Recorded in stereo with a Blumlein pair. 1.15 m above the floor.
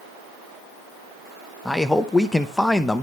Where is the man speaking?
Straight ahead, 0.8 m.